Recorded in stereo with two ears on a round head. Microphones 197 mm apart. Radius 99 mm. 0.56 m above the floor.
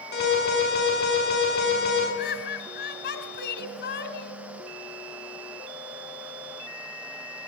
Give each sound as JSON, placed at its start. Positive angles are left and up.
{"t": 0.1, "sound": "an alarm", "side_deg": 45, "distance_m": 8.5}
{"t": 2.2, "sound": "laughter", "side_deg": 50, "distance_m": 4.0}